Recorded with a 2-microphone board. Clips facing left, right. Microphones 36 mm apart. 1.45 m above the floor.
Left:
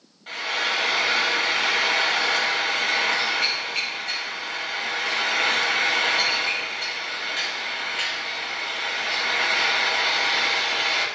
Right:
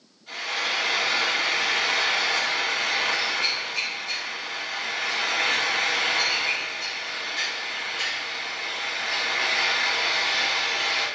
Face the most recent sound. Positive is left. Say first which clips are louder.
# left 2 dB
turn(degrees=50)  # may be behind; listen again after turning